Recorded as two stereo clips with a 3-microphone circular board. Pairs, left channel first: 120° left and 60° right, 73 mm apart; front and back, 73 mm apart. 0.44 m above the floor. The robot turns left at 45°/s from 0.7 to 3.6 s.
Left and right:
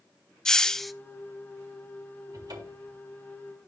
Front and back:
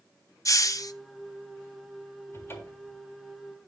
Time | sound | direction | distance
0.5 | a hiss | 40° left | 0.5 m
2.3 | a cupboard door | 45° right | 3 m